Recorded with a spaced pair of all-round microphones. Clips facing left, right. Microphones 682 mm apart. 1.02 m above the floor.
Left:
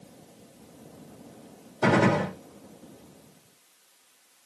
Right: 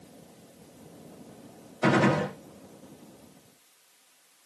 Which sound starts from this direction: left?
A gunshot, at 1.8 s.